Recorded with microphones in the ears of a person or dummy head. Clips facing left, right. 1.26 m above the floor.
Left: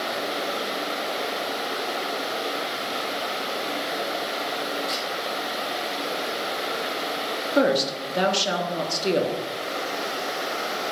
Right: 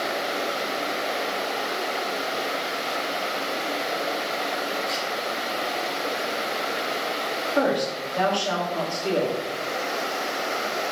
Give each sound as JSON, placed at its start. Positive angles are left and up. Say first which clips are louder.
{"t": 4.9, "sound": "a camera shutter", "louder": "right 1 dB", "side_deg": 25, "distance_m": 1.3}
{"t": 7.5, "sound": "a woman speaking", "louder": "left 2 dB", "side_deg": 25, "distance_m": 0.7}